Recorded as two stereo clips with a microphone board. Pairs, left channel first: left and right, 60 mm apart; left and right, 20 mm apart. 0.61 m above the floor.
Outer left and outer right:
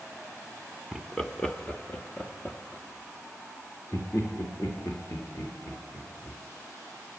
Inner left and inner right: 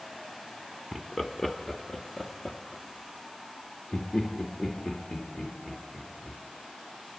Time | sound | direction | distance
0.9 | laughter | centre (ahead or behind) | 1.2 m